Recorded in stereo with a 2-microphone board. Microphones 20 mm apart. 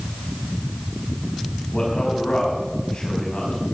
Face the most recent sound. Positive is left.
turn(degrees=55)  # may be behind; listen again after turning